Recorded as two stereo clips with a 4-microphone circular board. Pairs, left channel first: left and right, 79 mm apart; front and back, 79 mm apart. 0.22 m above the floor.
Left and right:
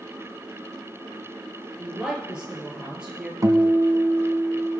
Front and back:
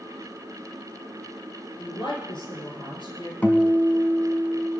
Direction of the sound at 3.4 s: 65° right.